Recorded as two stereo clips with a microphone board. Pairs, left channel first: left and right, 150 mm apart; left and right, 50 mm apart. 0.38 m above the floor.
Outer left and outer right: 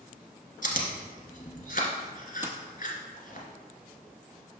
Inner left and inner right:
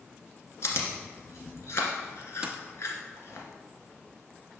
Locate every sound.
0.6 s chewing: 70° left (ahead or behind), 1.3 m
2.4 s a dropped coin: 15° right (ahead or behind), 0.6 m